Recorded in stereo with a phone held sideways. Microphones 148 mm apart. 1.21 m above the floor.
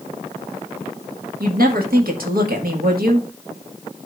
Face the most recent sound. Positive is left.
turn(degrees=-85)